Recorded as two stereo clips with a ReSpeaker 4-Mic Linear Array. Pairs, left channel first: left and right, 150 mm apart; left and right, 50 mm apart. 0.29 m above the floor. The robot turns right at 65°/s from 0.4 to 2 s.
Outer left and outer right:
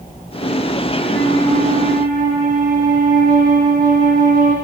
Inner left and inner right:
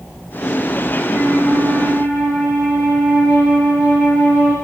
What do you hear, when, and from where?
1.0 s a flute: 95° right, 7 m; by 4.5 s 30° right, 7 m